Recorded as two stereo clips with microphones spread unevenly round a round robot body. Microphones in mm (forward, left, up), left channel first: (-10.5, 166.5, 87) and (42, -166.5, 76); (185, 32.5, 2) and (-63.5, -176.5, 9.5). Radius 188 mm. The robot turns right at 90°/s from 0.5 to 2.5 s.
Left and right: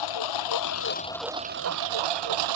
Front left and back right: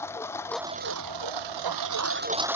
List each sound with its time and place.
0.0 s a lawn mower: 125° left; by 2.6 s 55° right